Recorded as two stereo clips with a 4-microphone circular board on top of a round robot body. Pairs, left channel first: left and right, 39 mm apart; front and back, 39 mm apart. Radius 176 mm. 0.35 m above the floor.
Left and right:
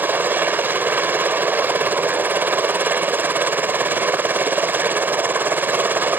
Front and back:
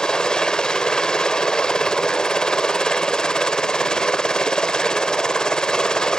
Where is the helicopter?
65° right.